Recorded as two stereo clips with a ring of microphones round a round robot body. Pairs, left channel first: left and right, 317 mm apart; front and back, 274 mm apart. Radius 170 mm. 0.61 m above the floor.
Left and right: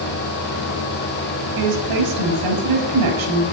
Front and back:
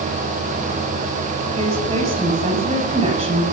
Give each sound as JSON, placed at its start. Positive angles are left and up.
{"t": 1.6, "sound": "a woman speaking", "azimuth_deg": -105, "distance_m": 7.0}